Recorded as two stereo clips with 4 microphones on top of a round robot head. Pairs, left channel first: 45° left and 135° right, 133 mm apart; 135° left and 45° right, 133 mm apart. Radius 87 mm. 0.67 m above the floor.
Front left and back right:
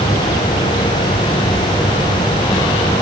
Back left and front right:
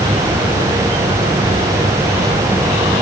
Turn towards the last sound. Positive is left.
No sound to turn to.